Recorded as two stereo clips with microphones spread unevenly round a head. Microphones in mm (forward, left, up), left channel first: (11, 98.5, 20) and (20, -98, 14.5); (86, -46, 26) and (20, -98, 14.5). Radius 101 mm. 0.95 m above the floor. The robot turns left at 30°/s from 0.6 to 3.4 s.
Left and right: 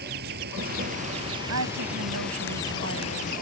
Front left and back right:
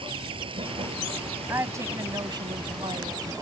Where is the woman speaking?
80° right; by 3.3 s 135° right.